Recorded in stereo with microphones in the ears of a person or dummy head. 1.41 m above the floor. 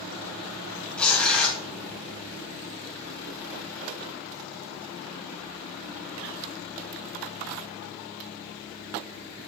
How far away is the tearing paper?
About 1.4 m.